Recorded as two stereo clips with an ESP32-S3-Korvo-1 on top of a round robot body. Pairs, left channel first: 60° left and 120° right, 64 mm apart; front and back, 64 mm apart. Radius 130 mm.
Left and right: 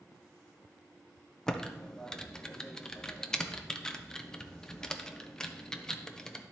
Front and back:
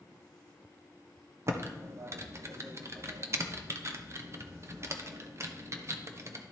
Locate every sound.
1.5 s typing on a keyboard: 140° left, 0.9 m